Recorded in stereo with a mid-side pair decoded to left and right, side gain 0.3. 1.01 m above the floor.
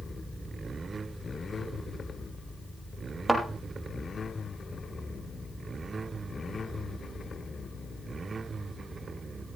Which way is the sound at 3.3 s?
15° right.